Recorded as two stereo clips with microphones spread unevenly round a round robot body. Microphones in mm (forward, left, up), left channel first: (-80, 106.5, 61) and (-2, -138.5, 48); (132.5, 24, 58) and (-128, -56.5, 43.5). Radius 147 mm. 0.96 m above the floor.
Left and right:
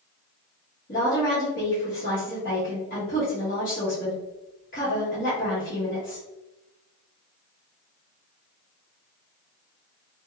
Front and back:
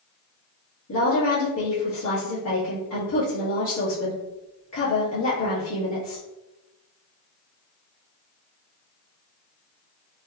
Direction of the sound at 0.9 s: 50° left.